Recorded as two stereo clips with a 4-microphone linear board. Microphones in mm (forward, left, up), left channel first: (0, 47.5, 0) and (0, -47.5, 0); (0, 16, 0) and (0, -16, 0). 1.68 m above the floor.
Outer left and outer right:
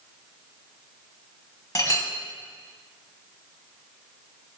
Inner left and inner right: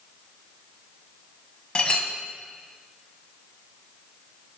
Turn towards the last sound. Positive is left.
turn(degrees=35)  # may be behind; listen again after turning